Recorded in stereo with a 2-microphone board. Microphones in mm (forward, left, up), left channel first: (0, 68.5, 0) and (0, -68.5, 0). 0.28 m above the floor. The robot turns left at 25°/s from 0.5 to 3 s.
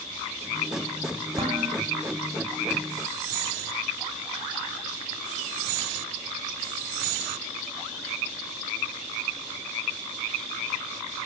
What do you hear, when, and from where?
1.4 s dishes clattering: 45° right (ahead or behind), 6 m; by 1.8 s 55° right (ahead or behind), 6 m